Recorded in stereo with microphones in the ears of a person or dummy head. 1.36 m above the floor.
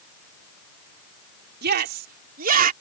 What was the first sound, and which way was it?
A shout, 60° right (ahead or behind).